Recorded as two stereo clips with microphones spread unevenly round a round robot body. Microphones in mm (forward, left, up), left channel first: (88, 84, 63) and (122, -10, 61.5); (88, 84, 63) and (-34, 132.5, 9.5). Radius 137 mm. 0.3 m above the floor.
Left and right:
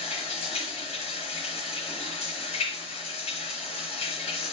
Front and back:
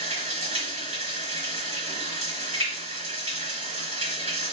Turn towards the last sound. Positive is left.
turn(degrees=130)